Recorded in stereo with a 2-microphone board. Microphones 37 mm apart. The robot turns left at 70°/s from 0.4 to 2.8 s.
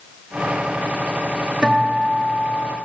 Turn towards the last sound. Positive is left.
turn(degrees=-110)